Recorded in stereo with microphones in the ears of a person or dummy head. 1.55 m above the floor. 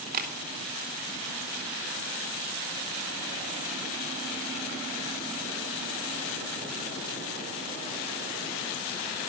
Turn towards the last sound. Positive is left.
turn(degrees=-45)  # may be behind; listen again after turning